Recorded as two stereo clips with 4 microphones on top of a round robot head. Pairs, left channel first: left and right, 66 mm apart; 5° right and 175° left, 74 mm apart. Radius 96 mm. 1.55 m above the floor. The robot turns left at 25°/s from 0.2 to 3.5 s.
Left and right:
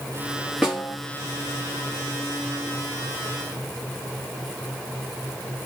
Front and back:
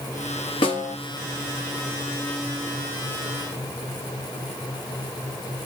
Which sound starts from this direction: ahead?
A snare drum, at 0.6 s.